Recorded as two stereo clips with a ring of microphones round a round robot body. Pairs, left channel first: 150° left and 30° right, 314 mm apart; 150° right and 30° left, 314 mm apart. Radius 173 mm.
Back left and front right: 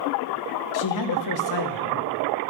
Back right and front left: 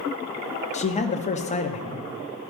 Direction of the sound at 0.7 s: 145° left.